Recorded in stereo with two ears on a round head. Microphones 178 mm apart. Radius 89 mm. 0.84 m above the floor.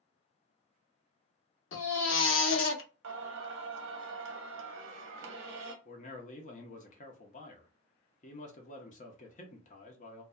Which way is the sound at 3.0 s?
65° right (ahead or behind).